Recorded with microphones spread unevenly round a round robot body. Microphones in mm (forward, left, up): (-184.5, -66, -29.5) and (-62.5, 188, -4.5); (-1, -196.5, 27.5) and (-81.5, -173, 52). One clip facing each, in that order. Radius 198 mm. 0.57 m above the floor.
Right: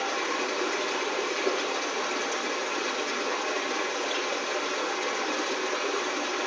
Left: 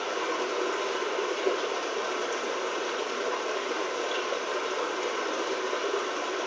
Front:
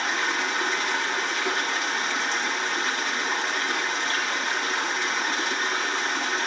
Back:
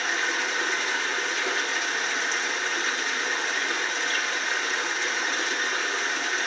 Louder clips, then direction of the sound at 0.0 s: Left 1 dB, front 1 dB; 45° right.